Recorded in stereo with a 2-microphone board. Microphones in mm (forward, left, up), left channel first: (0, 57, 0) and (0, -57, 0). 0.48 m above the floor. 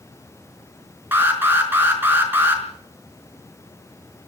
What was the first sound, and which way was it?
An alarm, 20° right (ahead or behind).